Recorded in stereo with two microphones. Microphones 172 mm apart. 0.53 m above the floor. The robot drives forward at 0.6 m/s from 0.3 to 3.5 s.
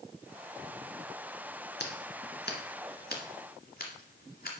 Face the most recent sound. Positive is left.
turn(degrees=60)  # may be behind; listen again after turning